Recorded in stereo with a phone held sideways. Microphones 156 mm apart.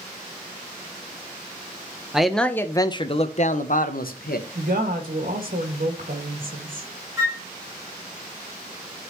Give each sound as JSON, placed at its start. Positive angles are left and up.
{"t": 2.1, "sound": "a man speaking", "side_deg": -5, "distance_m": 0.8}
{"t": 4.5, "sound": "a woman speaking", "side_deg": -65, "distance_m": 2.0}
{"t": 7.2, "sound": "a flute", "side_deg": -20, "distance_m": 1.7}